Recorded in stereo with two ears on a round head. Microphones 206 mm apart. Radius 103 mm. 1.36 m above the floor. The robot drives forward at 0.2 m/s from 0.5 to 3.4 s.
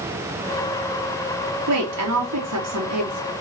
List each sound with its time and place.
1.7 s a woman speaking: 80° right, 3 m; by 3.3 s 85° right, 3 m